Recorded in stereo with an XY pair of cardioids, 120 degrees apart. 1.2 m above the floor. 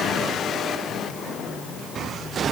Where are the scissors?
No scissors in this recording.